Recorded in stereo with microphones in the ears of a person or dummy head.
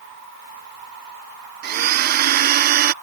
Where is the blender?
45° right (ahead or behind).